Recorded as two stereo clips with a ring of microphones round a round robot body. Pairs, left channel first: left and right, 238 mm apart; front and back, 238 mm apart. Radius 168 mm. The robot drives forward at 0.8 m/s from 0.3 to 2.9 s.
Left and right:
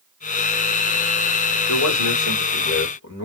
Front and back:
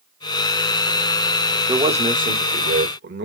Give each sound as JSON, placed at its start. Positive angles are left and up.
{"t": 1.7, "sound": "a man speaking", "azimuth_deg": 110, "distance_m": 1.3}